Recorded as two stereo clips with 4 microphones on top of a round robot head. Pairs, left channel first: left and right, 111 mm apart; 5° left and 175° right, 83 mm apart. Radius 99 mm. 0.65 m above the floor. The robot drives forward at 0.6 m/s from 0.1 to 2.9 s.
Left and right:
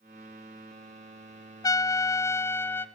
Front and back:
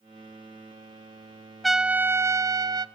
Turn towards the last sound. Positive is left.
turn(degrees=160)